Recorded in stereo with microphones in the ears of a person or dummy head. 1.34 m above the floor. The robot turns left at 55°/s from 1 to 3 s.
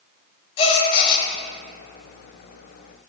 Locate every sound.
0.6 s a gasp: 30° left (ahead or behind), 1.5 m; by 1.3 s 15° left (ahead or behind), 1.5 m